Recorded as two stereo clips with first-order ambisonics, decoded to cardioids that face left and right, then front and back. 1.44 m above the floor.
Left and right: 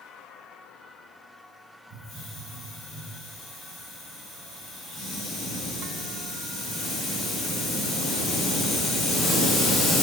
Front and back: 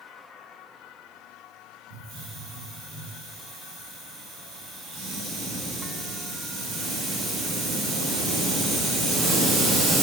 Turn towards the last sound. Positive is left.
turn(degrees=160)